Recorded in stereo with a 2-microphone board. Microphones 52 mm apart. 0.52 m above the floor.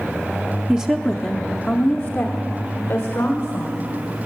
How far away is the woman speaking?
About 0.6 m.